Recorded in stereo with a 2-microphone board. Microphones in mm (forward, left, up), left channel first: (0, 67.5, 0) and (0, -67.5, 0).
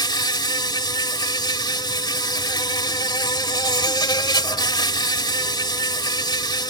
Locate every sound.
0.0 s an insect: 30° left (ahead or behind)